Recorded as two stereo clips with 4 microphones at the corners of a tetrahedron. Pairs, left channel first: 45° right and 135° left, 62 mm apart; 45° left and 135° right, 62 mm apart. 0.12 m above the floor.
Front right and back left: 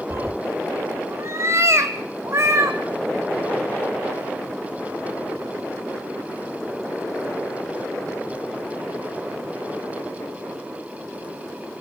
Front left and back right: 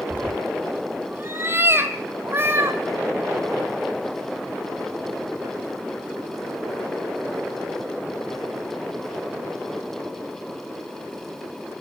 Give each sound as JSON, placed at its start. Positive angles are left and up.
{"t": 0.1, "sound": "a cat meowing", "azimuth_deg": 170, "distance_m": 0.6}